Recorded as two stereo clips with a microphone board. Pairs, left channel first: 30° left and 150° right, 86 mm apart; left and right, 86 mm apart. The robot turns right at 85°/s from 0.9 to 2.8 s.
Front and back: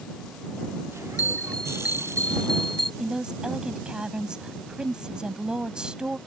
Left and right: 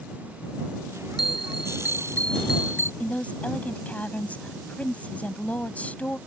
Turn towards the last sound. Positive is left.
turn(degrees=140)